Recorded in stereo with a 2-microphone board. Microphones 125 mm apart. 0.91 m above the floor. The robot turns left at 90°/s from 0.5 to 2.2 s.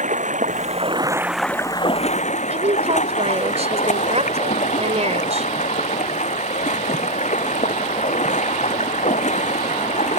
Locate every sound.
0.0 s running water: 100° right; by 10.2 s 110° left
2.5 s a woman speaking: 60° right (ahead or behind)